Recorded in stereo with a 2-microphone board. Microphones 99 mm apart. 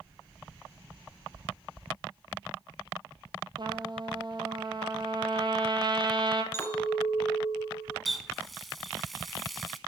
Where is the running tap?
Centre (ahead or behind), 0.8 m.